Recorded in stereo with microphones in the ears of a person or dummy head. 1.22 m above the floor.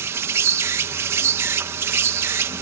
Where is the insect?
15° right (ahead or behind).